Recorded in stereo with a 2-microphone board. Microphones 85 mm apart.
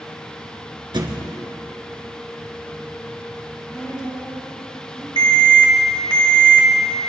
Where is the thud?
60° right (ahead or behind), 2.0 m.